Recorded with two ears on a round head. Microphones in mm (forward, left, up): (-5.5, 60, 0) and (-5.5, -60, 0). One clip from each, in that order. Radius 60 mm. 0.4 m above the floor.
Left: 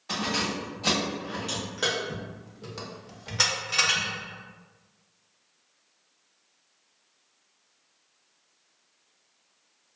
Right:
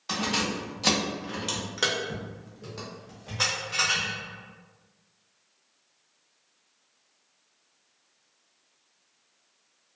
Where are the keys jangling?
50° right (ahead or behind), 1.4 m; by 4.1 s 50° left (ahead or behind), 1.0 m.